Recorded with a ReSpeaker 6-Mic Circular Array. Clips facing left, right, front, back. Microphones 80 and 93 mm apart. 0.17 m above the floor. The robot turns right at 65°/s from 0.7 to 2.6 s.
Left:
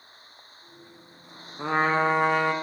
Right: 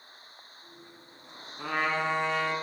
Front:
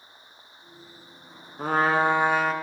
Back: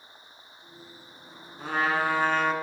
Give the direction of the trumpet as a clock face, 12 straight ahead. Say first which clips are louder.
Left 6 dB, front 5 dB; 11 o'clock.